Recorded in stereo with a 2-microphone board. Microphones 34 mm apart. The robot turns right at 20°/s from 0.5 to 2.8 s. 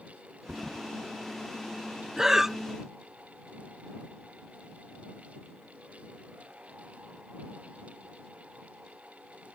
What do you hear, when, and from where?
0.5 s a thud: 40° right (ahead or behind); by 0.9 s 45° right (ahead or behind)
2.2 s breathing: 15° right (ahead or behind); by 2.6 s 10° right (ahead or behind)